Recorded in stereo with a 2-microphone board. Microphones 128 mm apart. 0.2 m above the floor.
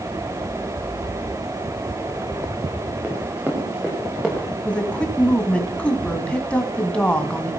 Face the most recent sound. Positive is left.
turn(degrees=10)  # may be behind; listen again after turning